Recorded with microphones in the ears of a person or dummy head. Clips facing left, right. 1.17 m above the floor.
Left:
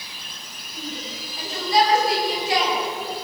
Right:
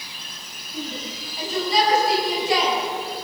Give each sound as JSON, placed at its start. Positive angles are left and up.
{"t": 0.7, "sound": "a shout", "side_deg": -80, "distance_m": 7.5}